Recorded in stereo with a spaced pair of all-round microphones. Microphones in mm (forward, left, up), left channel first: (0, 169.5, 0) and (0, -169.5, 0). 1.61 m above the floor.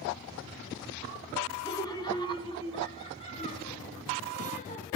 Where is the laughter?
10° left (ahead or behind), 5 m; by 4.9 s 20° left (ahead or behind), 7 m.